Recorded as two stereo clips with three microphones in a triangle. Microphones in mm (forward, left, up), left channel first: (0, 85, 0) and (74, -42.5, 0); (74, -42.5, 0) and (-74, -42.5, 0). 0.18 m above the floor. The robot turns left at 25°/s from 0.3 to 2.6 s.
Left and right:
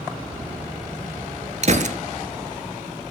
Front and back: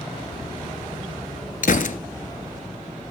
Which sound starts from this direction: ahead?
A gunshot, at 1.6 s.